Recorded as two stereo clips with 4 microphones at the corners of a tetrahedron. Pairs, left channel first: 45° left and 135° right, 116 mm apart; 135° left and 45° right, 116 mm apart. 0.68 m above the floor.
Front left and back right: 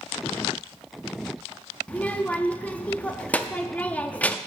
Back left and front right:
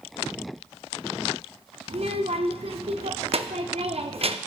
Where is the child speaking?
30° right, 0.6 m.